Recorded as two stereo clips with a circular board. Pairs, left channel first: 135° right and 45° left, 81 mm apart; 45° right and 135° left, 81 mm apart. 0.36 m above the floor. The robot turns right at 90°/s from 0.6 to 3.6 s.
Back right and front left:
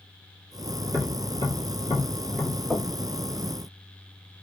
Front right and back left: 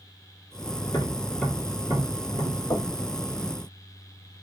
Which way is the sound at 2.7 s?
70° right.